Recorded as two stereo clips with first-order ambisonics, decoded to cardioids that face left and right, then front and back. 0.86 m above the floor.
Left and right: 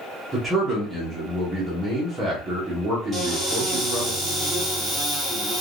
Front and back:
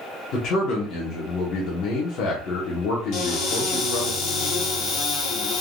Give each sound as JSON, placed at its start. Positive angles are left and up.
{"t": 0.3, "sound": "a man speaking", "azimuth_deg": -10, "distance_m": 1.0}
{"t": 3.1, "sound": "a cupboard door", "azimuth_deg": 5, "distance_m": 1.8}